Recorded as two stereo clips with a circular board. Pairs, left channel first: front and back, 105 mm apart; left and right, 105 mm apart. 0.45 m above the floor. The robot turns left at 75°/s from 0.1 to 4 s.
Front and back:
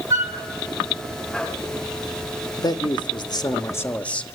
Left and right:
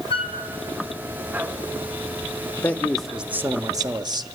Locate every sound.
0.1 s a flute: 120° left, 1.7 m; by 0.3 s 100° left, 1.7 m
2.6 s a man speaking: 35° left, 1.0 m; by 4.3 s 75° right, 1.0 m